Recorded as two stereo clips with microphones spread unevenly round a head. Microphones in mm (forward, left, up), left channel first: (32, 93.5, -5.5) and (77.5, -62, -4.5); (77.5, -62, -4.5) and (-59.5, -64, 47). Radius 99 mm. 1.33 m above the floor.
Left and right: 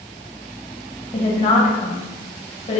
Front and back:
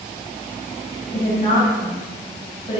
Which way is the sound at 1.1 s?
60° left.